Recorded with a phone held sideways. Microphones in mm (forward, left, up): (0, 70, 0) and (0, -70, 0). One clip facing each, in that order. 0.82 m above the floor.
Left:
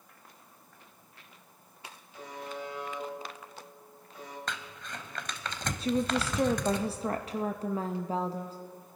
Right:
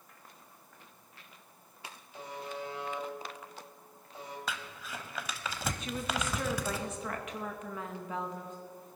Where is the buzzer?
30° right (ahead or behind), 2.5 m.